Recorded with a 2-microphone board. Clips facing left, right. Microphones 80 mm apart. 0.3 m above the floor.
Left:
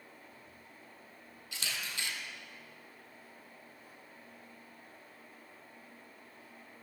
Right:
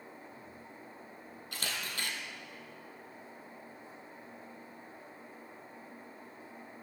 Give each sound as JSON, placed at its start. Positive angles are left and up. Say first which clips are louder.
{"t": 1.5, "sound": "a camera shutter", "louder": "right 1 dB", "side_deg": -50, "distance_m": 1.8}